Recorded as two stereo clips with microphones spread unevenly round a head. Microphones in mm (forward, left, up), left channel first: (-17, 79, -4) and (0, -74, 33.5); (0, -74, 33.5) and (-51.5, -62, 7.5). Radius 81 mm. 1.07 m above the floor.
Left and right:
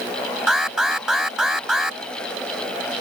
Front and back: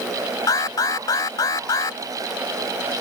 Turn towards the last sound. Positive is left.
turn(degrees=5)